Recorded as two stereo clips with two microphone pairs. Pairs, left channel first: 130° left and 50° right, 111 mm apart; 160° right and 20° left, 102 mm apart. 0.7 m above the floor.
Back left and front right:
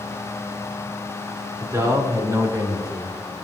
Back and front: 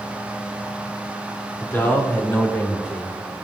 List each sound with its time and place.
1.6 s a man speaking: 105° right, 1.8 m; by 3.1 s 100° right, 2.5 m